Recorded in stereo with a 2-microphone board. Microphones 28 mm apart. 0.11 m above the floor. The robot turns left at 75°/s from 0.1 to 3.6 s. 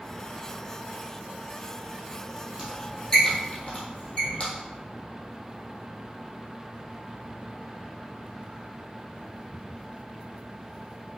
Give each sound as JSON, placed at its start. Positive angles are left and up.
{"t": 2.6, "sound": "a squeak", "side_deg": -30, "distance_m": 1.8}